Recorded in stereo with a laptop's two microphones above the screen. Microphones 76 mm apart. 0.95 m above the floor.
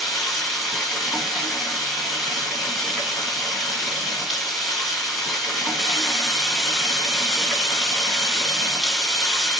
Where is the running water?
Centre (ahead or behind), 1.8 m.